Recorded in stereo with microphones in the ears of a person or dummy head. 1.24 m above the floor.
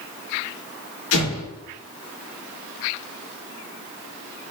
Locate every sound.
1.1 s an explosion: 75° left (ahead or behind), 3 m